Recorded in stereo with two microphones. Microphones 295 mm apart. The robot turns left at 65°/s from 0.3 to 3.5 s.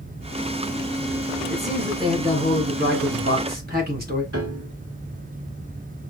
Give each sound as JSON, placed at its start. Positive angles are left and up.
{"t": 1.5, "sound": "a man speaking", "azimuth_deg": 10, "distance_m": 1.7}
{"t": 4.3, "sound": "a piano", "side_deg": -50, "distance_m": 0.8}